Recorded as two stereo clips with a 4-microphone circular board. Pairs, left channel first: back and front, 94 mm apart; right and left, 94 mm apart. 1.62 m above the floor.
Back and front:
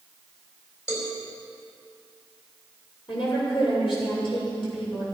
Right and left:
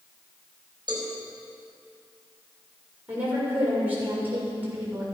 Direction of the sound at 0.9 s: 125° left.